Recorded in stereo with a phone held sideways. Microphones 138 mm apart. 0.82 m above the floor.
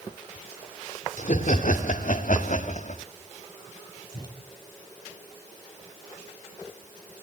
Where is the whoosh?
30° left (ahead or behind), 4 m.